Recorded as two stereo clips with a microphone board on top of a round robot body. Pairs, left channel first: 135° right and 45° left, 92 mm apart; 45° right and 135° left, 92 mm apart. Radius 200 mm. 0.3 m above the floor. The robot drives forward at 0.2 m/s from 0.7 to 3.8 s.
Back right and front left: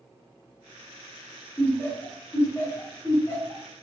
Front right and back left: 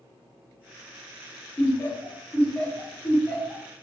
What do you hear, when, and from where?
1.6 s laughter: 85° right, 1.6 m; by 3.6 s 110° right, 1.6 m